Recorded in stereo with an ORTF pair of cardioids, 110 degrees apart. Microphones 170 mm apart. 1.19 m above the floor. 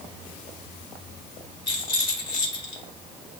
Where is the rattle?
30° left, 1.3 m.